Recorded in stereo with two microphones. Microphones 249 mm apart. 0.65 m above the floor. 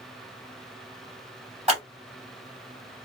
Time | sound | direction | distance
1.7 | scissors | 25° right (ahead or behind) | 2.5 m